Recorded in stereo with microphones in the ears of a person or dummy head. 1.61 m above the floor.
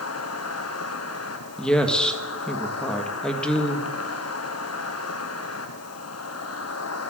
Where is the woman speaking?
5° left (ahead or behind), 1.6 m.